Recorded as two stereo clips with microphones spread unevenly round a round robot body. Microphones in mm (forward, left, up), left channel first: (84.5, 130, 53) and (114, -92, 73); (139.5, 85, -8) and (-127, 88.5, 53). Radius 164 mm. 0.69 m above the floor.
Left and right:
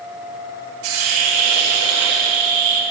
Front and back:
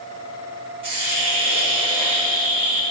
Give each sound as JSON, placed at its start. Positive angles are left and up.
{"t": 0.8, "sound": "a hiss", "azimuth_deg": -105, "distance_m": 1.9}